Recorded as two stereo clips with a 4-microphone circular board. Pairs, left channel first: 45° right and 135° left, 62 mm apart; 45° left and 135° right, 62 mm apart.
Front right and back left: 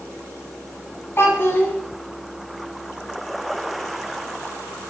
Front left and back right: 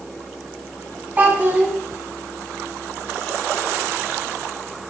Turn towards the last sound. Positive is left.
turn(degrees=-80)